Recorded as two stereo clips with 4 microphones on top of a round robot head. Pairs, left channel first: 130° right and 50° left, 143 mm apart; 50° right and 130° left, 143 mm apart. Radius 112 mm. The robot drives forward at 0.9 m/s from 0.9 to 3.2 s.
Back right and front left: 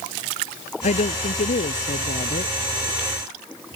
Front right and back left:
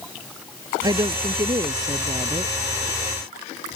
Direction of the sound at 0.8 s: 165° right.